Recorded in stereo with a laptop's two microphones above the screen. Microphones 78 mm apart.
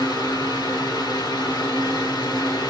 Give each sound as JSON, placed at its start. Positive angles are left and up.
{"t": 0.0, "sound": "a fan", "side_deg": 80, "distance_m": 1.2}